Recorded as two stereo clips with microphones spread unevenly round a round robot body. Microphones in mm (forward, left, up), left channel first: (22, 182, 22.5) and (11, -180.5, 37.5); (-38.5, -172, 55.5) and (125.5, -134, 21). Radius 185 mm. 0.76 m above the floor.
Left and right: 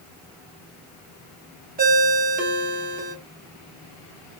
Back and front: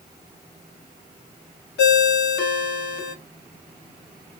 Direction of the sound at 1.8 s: 160° right.